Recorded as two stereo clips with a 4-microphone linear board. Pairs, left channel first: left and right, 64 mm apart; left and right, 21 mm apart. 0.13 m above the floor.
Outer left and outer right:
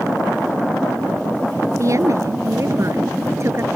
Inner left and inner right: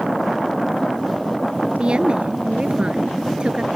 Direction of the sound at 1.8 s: 55° right (ahead or behind).